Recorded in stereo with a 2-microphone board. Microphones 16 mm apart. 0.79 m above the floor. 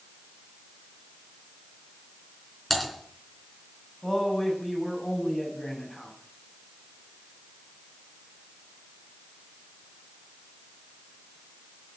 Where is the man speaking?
25° left (ahead or behind), 6.5 m.